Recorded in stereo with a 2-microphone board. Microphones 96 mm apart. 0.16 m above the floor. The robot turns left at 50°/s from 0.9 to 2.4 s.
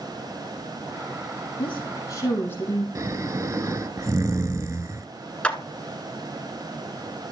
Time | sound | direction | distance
1.6 | a woman speaking | 65° left | 5 m
3.0 | snoring | 35° right (ahead or behind) | 0.6 m
5.4 | a clap | 10° left (ahead or behind) | 1.3 m